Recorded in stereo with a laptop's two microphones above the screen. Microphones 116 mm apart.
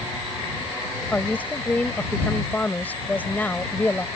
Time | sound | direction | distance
1.1 | a woman speaking | 15° left (ahead or behind) | ?